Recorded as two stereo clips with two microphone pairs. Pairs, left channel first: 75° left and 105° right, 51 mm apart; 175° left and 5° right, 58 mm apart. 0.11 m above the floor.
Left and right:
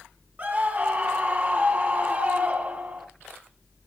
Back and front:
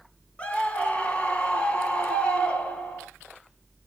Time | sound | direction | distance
0.4 | a scream | 130° right | 1.7 m